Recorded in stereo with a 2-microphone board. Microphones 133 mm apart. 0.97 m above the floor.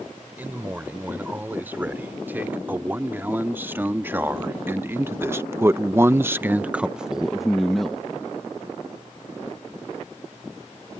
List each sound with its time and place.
0.4 s a man speaking: 15° right (ahead or behind); by 8.1 s 5° left (ahead or behind)